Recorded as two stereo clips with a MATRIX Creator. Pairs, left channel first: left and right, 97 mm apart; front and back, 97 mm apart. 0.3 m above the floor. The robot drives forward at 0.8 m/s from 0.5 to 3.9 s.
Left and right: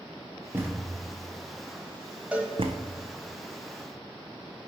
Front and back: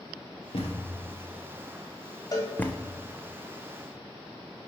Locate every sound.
0.5 s a thud: 20° right, 2.0 m; by 2.9 s 90° right, 0.7 m
2.3 s a cowbell: 20° right, 1.3 m; by 2.5 s 25° right, 1.2 m